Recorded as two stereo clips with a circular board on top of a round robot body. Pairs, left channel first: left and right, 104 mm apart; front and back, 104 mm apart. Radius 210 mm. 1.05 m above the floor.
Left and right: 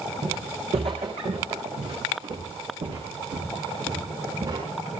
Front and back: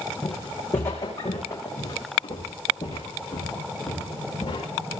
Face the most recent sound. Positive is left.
turn(degrees=-50)